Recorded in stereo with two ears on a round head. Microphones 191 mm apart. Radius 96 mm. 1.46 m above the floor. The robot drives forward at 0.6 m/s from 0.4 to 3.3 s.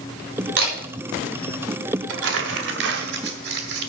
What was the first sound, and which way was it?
A camera shutter, 55° right (ahead or behind).